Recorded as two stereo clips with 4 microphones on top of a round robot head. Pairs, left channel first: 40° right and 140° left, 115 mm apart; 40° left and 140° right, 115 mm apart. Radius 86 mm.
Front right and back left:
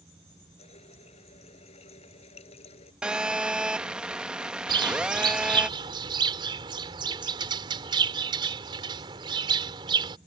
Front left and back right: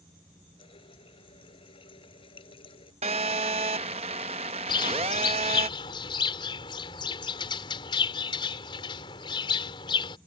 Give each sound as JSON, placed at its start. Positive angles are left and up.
{"t": 0.6, "sound": "a running tap", "azimuth_deg": -5}
{"t": 3.0, "sound": "a phone buzzing", "azimuth_deg": -140}
{"t": 4.7, "sound": "a bird", "azimuth_deg": 90}